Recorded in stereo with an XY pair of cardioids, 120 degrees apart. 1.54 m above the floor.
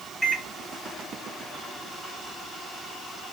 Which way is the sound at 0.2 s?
5° left.